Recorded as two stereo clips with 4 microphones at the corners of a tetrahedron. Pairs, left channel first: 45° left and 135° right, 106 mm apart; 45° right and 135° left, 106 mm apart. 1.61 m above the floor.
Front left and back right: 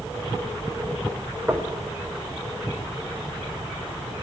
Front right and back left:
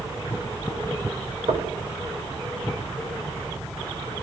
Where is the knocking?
155° left, 5 m.